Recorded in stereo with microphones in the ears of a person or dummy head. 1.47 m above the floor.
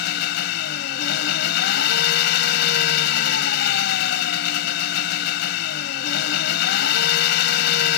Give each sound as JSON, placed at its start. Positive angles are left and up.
{"t": 0.0, "sound": "an engine running", "side_deg": 60}